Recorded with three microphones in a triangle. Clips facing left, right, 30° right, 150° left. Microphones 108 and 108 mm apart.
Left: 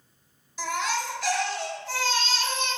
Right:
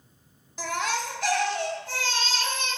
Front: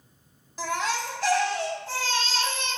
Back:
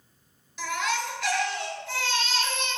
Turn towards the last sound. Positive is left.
turn(degrees=-70)